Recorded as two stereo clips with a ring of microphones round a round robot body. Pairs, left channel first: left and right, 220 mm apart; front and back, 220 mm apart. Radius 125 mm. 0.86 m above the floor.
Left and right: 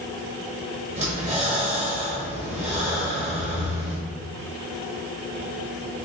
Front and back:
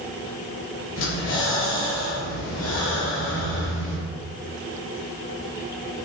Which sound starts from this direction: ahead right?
Breathing, at 1.0 s.